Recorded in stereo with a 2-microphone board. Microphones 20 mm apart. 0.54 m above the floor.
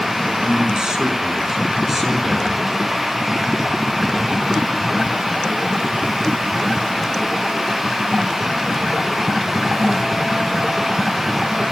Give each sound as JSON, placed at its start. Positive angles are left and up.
{"t": 0.4, "sound": "a man speaking", "side_deg": -45, "distance_m": 5.0}